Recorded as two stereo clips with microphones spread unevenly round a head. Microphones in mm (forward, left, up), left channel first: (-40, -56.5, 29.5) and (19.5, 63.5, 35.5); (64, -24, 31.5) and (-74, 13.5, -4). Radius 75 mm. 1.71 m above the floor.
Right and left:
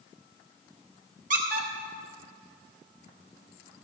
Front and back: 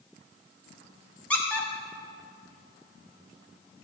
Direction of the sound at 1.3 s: 50° left.